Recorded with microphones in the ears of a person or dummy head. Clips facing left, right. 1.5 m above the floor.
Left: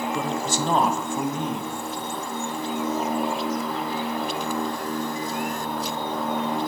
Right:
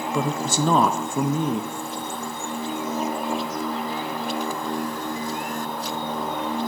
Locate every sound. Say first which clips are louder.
0.1 s a man speaking: right 2 dB; 80° right, 0.8 m